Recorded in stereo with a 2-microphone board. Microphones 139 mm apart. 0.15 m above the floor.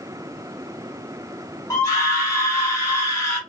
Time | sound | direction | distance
1.7 | a scream | 20° left (ahead or behind) | 1.3 m